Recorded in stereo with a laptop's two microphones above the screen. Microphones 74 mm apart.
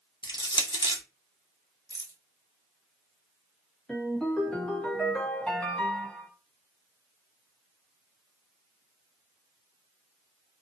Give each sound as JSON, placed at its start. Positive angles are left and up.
{"t": 0.2, "sound": "crushing", "side_deg": 85, "distance_m": 0.5}
{"t": 1.9, "sound": "a rattle", "side_deg": -55, "distance_m": 0.7}
{"t": 3.9, "sound": "a ringtone", "side_deg": 15, "distance_m": 0.9}